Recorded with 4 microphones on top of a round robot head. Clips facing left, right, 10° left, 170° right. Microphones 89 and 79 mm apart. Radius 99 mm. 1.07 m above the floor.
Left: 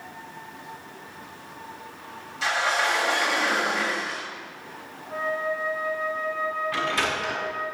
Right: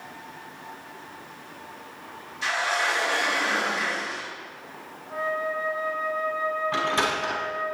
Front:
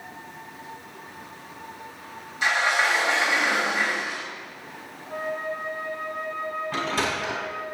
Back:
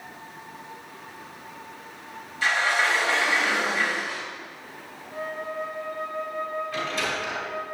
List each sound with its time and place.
2.4 s a sliding door: 80° left, 4 m
5.1 s a flute: straight ahead, 5 m
6.7 s a sliding door: 30° right, 5 m